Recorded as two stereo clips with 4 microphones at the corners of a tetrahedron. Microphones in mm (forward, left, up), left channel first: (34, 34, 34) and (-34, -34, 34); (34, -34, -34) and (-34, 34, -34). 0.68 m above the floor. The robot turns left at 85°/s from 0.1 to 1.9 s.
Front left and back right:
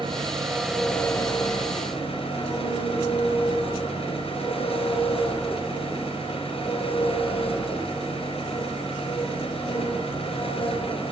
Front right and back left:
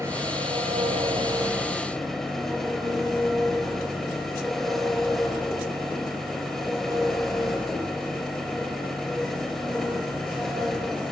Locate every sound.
0.0 s an engine running: 165° right, 3.5 m; by 11.1 s 45° left, 3.5 m